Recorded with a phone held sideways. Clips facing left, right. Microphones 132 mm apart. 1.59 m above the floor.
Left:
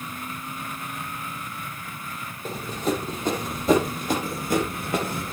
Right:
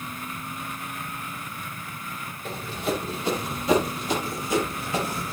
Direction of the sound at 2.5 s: 40° left (ahead or behind).